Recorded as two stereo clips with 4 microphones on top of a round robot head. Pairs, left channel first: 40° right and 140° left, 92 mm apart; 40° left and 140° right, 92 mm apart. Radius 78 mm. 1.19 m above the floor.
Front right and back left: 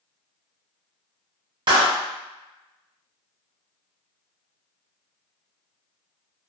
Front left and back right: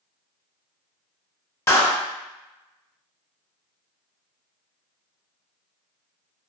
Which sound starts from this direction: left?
A clap, at 1.7 s.